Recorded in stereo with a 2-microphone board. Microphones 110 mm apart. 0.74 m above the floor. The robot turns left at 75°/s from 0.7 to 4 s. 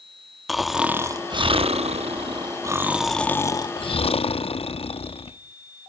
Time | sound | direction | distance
0.5 | snoring | straight ahead | 0.7 m